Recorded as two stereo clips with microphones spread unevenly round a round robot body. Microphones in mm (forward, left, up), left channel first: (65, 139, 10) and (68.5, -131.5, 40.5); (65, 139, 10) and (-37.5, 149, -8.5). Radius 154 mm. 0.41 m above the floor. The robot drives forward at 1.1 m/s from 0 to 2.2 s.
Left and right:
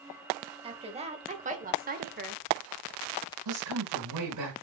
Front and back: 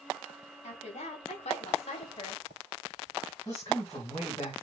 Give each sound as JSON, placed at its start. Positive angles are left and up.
{"t": 0.6, "sound": "a woman speaking", "azimuth_deg": -20, "distance_m": 3.0}
{"t": 3.5, "sound": "a woman speaking", "azimuth_deg": -85, "distance_m": 4.5}